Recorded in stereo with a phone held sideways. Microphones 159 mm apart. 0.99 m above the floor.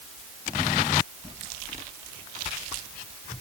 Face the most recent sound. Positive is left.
No sound to turn to.